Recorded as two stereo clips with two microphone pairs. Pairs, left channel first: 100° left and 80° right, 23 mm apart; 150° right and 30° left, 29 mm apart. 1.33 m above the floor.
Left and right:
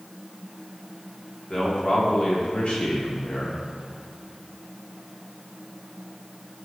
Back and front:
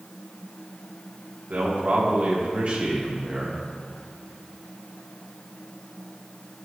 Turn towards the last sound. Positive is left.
turn(degrees=90)